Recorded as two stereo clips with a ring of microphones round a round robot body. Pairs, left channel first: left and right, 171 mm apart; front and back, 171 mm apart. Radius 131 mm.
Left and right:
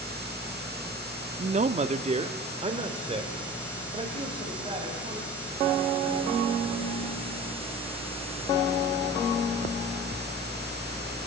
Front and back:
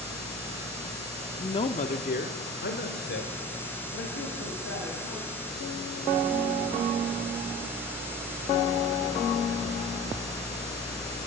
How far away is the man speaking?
About 0.7 m.